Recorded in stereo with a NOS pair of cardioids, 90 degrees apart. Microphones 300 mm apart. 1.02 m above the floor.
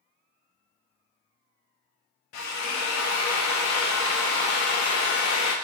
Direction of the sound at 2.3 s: 65° left.